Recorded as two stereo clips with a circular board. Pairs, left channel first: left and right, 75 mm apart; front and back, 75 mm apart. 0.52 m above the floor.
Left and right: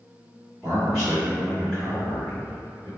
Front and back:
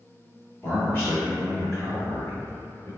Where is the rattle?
I don't hear a rattle.